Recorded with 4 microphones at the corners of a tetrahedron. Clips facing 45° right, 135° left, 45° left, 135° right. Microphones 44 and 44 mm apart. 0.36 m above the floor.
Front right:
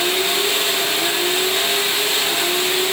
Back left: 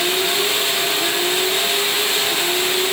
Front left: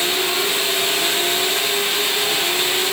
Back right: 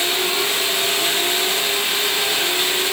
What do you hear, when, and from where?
Only background noise.